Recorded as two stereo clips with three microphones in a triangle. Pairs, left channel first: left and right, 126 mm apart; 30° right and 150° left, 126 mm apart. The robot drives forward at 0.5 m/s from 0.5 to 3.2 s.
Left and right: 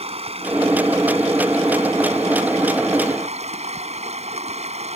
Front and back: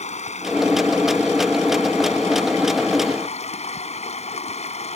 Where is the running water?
55° right; by 5.0 s 60° right.